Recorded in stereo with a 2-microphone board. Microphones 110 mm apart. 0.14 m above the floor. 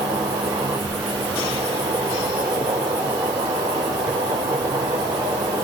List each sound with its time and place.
0.0 s an insect: 40° right (ahead or behind), 4.5 m